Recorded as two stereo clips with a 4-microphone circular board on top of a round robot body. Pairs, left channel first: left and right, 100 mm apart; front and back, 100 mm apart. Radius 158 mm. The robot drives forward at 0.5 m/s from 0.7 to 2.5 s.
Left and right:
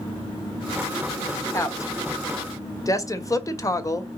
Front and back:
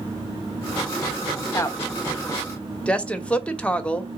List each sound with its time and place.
1.5 s a woman speaking: 45° left, 1.5 m; by 4.1 s 70° left, 1.4 m